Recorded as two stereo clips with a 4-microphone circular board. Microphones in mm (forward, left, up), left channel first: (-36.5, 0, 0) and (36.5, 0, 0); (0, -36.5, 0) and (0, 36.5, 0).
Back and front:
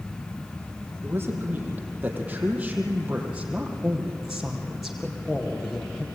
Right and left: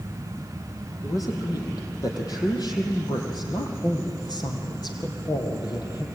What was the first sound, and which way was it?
A man speaking, 60° right.